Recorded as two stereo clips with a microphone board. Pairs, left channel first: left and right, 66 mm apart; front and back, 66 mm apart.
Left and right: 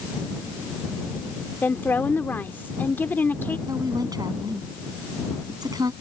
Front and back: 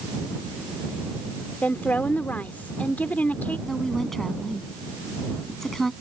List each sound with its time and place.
1.6 s a woman speaking: 45° left
3.7 s a woman speaking: 85° right